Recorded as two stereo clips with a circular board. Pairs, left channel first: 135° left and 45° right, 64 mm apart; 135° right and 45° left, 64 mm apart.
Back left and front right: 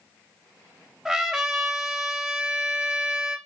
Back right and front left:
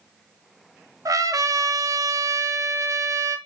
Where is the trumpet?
35° left, 1.0 m.